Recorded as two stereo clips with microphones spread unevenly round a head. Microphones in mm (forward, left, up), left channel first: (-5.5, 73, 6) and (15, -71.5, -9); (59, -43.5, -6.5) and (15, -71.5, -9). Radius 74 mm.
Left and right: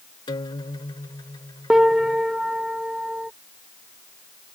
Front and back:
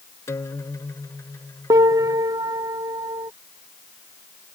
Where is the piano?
165° right.